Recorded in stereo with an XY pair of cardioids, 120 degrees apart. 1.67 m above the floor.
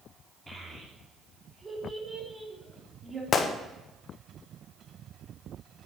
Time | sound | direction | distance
0.5 | a child speaking | 20° right | 2.5 m
3.3 | a gunshot | 45° left | 1.0 m